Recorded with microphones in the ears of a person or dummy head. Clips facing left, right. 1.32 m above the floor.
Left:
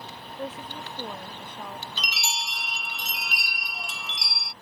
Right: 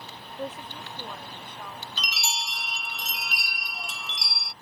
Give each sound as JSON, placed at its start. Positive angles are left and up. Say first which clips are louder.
{"t": 0.4, "sound": "a woman speaking", "louder": "even", "side_deg": -10}
{"t": 2.0, "sound": "a chime", "louder": "left 1 dB", "side_deg": -5}